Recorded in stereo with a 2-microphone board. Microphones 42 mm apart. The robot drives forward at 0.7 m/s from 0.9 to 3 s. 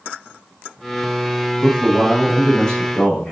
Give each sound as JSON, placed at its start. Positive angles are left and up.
{"t": 1.6, "sound": "a man speaking", "side_deg": 20, "distance_m": 5.5}